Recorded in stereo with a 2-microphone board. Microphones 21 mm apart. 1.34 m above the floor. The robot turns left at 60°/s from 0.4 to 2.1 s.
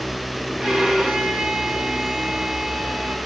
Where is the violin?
45° right, 2.5 m; by 3.2 s 135° right, 2.5 m.